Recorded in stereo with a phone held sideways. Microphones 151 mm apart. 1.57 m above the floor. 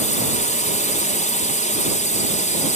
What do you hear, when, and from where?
0.0 s a drone: 55° left (ahead or behind)